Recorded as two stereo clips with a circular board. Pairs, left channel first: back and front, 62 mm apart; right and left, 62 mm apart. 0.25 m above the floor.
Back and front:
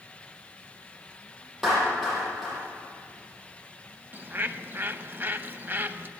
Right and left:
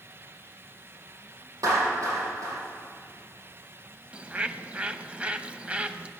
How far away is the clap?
About 7 m.